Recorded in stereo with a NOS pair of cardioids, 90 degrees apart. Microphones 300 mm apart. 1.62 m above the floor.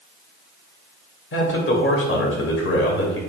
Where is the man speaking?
40° left, 1.6 m.